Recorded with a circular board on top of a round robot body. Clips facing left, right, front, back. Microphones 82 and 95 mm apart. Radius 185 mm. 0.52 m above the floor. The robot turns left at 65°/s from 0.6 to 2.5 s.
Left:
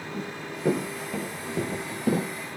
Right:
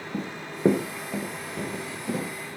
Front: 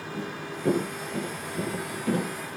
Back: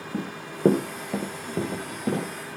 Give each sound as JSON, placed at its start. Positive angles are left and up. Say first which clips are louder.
{"t": 0.1, "sound": "running footsteps", "louder": "right 2 dB, back 3 dB", "azimuth_deg": -145, "distance_m": 3.0}